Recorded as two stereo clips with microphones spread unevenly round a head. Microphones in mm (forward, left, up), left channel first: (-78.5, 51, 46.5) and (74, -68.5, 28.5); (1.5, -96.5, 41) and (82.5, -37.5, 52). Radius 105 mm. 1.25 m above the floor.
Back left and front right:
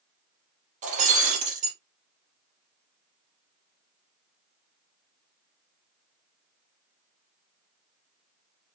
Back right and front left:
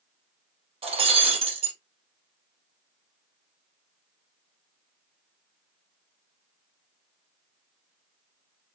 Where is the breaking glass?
20° left, 3.5 m.